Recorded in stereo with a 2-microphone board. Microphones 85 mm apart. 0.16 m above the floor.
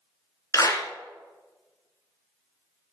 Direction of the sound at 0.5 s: 40° left (ahead or behind).